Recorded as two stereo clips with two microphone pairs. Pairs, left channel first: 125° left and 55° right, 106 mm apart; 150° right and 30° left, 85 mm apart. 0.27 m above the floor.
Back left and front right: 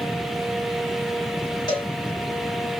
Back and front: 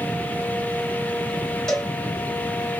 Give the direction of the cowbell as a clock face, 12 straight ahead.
8 o'clock.